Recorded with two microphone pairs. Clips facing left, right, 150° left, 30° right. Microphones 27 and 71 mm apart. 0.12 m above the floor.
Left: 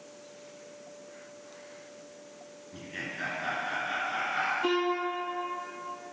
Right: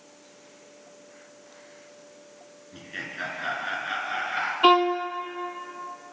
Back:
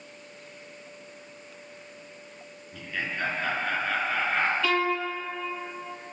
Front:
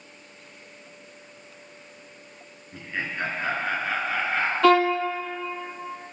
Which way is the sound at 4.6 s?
60° right.